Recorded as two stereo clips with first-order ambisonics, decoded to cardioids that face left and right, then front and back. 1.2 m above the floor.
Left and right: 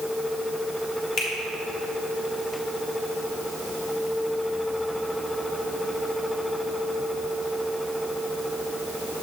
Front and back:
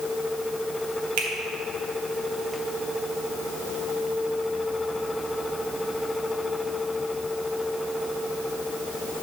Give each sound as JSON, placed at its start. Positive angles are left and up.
{"t": 1.2, "sound": "a finger snap", "azimuth_deg": 165, "distance_m": 1.7}